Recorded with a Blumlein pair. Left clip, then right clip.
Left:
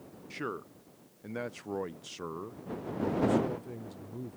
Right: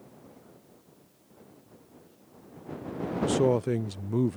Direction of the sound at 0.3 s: 45° left.